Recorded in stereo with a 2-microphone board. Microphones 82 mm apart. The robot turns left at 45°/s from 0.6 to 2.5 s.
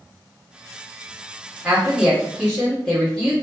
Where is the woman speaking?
5° right (ahead or behind), 1.2 m; by 3.3 s 10° left (ahead or behind), 1.2 m.